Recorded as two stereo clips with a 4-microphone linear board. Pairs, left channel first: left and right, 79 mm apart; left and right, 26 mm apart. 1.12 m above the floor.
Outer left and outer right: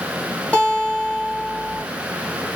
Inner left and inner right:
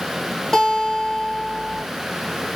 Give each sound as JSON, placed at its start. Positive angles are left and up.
{"t": 0.5, "sound": "a guitar", "side_deg": 20, "distance_m": 1.3}